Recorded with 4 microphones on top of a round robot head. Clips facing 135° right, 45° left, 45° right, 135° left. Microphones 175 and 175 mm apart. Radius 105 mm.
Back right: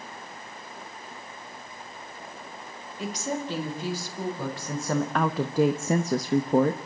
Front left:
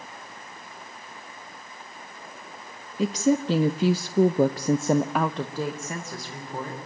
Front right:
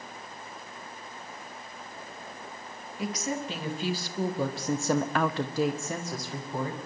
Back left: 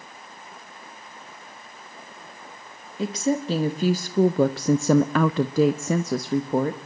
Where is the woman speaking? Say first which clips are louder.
Front left 9 dB, back left 8 dB; 70° left, 1.4 m; by 6.8 s 175° right, 1.2 m.